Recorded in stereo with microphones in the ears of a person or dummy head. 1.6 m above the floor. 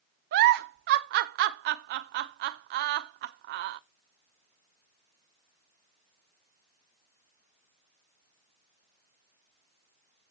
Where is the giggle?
55° right (ahead or behind), 0.6 m.